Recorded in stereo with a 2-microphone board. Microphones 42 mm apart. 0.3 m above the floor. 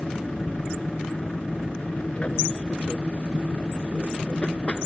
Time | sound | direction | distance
0.0 | an aircraft | 30° left (ahead or behind) | ?